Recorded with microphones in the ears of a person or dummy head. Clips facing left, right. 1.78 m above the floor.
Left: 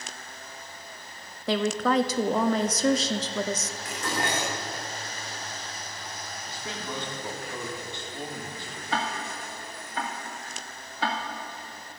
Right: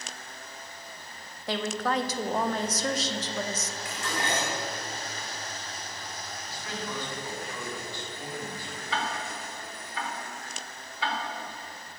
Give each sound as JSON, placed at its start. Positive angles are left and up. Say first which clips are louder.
{"t": 1.5, "sound": "a woman speaking", "louder": "left 5 dB", "side_deg": 65, "distance_m": 1.0}
{"t": 3.9, "sound": "dishes clattering", "louder": "left 2 dB", "side_deg": 40, "distance_m": 3.5}
{"t": 6.5, "sound": "a man speaking", "louder": "even", "side_deg": 20, "distance_m": 3.5}
{"t": 8.9, "sound": "ticking", "louder": "left 2 dB", "side_deg": 40, "distance_m": 1.9}